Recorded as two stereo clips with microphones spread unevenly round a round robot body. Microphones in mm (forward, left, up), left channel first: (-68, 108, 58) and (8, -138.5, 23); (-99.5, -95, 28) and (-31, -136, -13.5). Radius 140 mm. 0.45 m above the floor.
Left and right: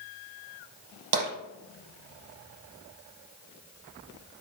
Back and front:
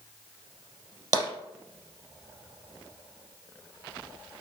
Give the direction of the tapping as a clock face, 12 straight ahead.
2 o'clock.